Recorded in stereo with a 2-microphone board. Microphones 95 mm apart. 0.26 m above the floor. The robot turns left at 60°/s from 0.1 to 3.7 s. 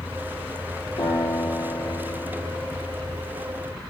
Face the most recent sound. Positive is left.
turn(degrees=-35)